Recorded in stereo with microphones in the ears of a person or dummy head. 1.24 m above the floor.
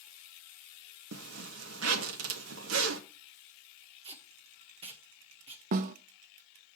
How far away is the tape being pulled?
About 1.2 m.